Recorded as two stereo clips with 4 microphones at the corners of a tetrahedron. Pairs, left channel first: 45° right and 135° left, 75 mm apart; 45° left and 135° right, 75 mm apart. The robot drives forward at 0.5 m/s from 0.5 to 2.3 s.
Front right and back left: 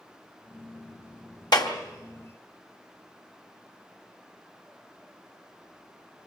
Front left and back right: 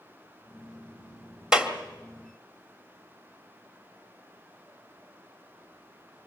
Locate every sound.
1.5 s a clap: 55° right, 1.9 m; by 1.7 s 60° right, 1.8 m